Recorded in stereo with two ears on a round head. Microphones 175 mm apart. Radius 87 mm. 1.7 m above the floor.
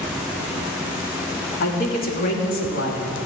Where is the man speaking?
45° left (ahead or behind), 2.5 m.